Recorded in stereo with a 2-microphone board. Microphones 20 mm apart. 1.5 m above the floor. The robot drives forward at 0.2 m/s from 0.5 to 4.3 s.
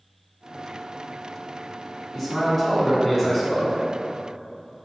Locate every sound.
2.1 s a man speaking: 5° left (ahead or behind), 1.3 m; by 3.8 s centre (ahead or behind), 1.6 m